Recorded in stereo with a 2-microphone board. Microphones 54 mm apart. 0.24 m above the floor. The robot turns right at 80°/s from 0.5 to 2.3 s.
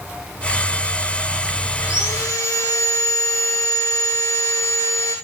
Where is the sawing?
60° left, 7 m; by 5.2 s 95° left, 7 m.